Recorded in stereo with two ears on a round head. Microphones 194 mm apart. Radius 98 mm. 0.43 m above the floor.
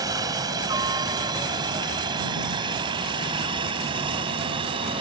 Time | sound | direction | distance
0.0 | a helicopter | 15° right (ahead or behind) | ?